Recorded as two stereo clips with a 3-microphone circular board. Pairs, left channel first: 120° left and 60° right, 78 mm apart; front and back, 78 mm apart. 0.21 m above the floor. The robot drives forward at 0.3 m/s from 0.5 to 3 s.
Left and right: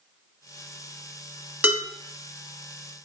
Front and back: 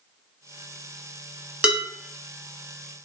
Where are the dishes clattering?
115° right, 0.9 m; by 1.8 s 120° right, 0.9 m.